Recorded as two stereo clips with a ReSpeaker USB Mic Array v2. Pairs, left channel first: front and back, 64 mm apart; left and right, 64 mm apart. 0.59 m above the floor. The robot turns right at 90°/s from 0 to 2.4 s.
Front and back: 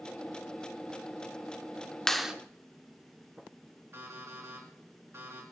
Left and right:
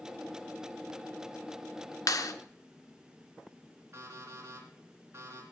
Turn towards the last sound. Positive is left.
turn(degrees=-135)